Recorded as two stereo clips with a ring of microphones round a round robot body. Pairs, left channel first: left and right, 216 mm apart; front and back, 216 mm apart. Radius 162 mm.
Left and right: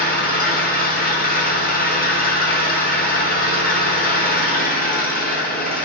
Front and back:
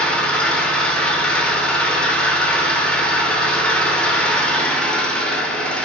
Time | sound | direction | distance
0.0 | an engine running | 85° left | 0.9 m